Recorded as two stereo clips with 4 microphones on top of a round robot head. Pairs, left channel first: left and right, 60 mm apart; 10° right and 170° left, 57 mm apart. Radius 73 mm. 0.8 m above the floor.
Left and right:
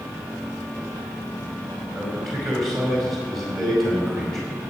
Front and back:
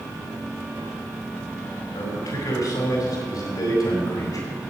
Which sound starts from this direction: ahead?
A man speaking, at 1.9 s.